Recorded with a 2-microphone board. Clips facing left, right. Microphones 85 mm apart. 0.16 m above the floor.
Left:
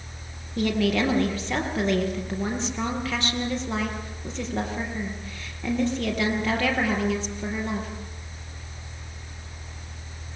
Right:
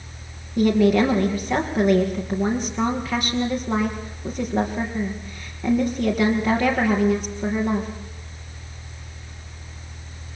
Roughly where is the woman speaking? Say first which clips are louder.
Right 6 dB; centre.